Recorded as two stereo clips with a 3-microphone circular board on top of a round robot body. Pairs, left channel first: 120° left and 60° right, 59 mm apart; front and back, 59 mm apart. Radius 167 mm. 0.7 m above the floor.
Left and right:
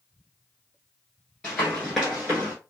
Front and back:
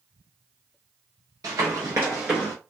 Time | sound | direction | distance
1.4 | running footsteps | 160° right | 0.8 m